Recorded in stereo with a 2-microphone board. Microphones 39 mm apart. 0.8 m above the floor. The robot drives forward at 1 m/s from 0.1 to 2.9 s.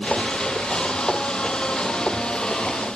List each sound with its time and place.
Only background noise.